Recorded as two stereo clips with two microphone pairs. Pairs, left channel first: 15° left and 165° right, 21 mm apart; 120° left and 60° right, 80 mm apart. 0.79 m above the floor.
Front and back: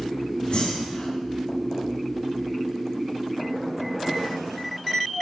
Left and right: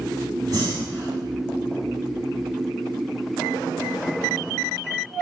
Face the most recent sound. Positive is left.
turn(degrees=-20)